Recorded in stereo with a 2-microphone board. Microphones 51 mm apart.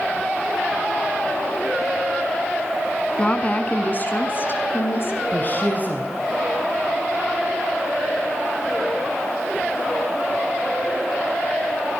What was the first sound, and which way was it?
A woman speaking, 25° left (ahead or behind).